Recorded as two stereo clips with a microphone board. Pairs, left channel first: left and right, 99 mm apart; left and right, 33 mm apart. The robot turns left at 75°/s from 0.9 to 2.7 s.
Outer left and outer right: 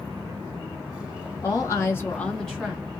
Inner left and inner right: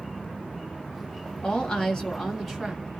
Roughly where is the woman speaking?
Left.